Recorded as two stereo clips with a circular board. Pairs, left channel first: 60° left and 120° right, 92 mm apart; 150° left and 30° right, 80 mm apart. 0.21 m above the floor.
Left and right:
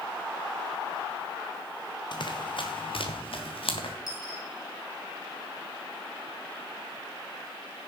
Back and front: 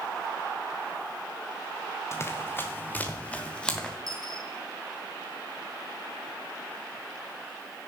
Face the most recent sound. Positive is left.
turn(degrees=15)